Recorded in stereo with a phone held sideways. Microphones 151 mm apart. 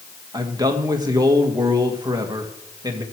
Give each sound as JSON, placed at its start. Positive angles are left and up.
{"t": 0.3, "sound": "a man speaking", "side_deg": -25, "distance_m": 1.8}